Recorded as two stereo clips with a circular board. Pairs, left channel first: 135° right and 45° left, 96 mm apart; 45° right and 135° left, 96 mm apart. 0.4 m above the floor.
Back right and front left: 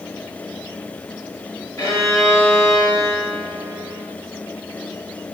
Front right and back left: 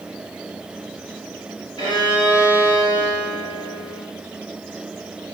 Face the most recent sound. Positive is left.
turn(degrees=-80)